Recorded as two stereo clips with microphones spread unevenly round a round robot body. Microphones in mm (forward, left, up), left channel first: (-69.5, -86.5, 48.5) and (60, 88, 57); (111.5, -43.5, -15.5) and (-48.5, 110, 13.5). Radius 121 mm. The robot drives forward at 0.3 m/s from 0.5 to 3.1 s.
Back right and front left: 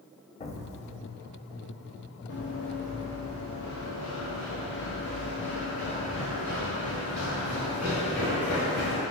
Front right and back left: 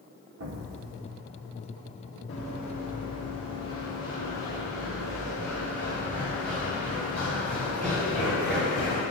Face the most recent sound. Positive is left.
turn(degrees=-140)